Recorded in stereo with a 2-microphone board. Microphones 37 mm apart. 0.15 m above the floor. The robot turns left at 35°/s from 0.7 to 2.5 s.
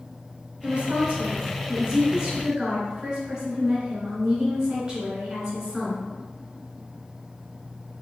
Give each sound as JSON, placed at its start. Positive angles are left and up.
{"t": 0.6, "sound": "a woman speaking", "azimuth_deg": -90, "distance_m": 1.7}